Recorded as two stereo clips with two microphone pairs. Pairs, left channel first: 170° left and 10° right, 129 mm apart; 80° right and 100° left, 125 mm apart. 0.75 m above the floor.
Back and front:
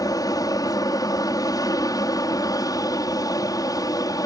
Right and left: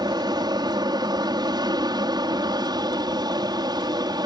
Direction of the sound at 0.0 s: 125° left.